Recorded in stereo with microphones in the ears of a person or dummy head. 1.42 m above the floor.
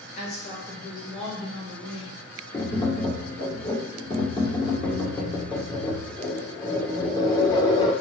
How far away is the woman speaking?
About 3 m.